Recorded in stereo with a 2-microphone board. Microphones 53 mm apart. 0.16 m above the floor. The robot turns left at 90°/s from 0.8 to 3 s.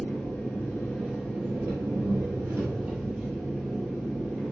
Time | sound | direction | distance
0.0 | an engine running | 25° left | 1.8 m